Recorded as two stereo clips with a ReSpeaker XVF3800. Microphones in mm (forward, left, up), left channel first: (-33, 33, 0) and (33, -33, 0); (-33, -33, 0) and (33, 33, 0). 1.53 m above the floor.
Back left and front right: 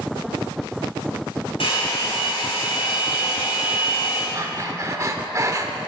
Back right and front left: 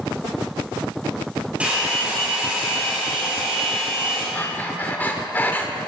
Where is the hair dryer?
120° left, 6.5 m.